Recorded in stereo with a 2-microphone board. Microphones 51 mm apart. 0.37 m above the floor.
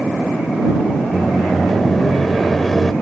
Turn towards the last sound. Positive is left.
turn(degrees=5)  # may be behind; listen again after turning